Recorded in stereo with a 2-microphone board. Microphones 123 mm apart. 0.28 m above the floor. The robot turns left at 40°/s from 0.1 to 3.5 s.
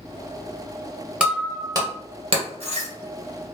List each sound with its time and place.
1.2 s breaking glass: 10° right (ahead or behind), 1.5 m; by 2.9 s 75° right (ahead or behind), 1.5 m